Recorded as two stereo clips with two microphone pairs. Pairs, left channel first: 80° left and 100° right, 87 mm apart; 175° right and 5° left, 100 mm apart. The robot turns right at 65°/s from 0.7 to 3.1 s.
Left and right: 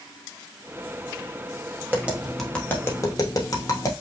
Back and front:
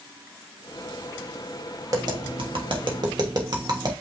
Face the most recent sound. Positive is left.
turn(degrees=40)